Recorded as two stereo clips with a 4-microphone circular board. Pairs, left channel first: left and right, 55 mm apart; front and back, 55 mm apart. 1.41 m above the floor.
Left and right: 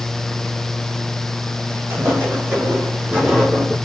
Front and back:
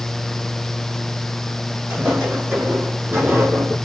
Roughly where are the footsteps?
Behind right.